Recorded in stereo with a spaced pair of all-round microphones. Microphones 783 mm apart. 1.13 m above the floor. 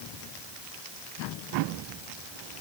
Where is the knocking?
I don't hear knocking.